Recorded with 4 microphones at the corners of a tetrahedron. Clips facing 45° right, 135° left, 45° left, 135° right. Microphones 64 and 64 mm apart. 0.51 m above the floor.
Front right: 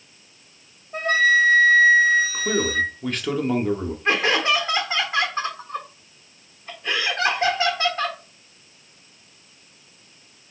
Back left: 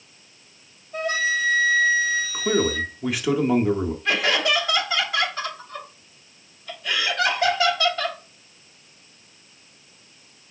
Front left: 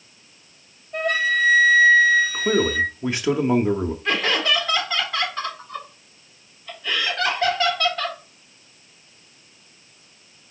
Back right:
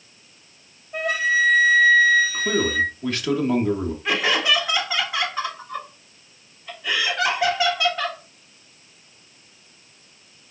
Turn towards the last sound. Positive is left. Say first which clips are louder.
# front right 3 dB, back right 1 dB
turn(degrees=-65)